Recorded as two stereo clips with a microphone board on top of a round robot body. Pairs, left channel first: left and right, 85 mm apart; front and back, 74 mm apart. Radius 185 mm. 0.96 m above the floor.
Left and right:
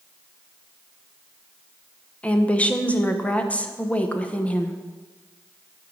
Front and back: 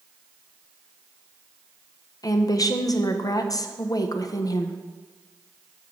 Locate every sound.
2.2 s a woman speaking: 20° left, 1.0 m